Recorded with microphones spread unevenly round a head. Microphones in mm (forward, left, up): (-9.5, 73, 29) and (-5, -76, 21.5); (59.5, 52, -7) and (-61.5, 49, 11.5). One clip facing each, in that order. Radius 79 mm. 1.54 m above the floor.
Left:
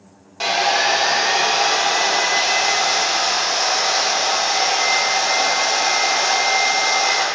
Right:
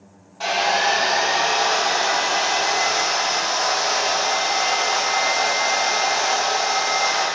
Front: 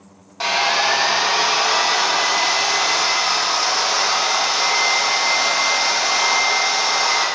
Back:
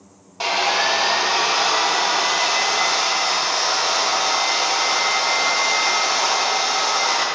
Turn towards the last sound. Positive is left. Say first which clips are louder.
# left 1 dB, front 1 dB
turn(degrees=105)